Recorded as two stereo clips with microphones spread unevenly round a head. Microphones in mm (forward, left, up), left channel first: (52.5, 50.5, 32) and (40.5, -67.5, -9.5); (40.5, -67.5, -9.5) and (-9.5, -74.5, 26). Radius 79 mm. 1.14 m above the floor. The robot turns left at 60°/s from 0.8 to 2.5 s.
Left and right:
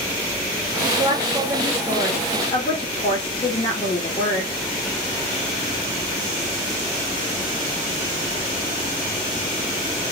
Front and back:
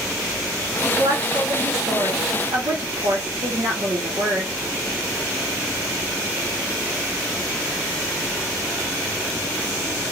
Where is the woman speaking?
120° right, 1.2 m; by 4.5 s 145° left, 1.2 m.